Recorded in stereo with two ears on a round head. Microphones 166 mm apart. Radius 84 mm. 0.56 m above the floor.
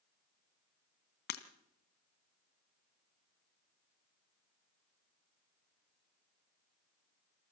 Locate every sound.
1.3 s breaking glass: 60° left (ahead or behind), 1.5 m